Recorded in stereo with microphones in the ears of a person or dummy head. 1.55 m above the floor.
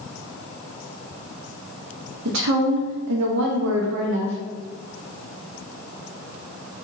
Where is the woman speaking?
80° right, 0.9 m.